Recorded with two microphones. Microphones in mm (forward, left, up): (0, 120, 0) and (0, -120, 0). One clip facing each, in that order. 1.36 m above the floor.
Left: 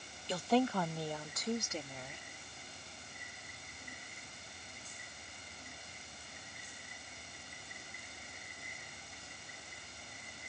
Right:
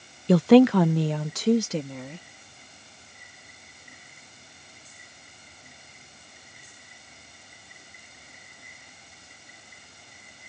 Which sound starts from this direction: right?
A woman speaking, at 0.3 s.